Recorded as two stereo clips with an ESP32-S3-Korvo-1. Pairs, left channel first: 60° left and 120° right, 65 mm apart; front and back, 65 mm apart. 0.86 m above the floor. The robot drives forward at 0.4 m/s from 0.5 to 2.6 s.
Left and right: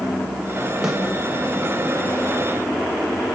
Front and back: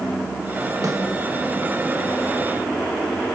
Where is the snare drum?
155° left, 2.5 m.